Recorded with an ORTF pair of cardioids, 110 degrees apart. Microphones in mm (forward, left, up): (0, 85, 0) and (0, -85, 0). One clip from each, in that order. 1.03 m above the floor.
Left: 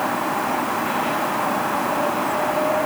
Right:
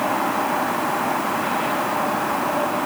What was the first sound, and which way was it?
Only background noise.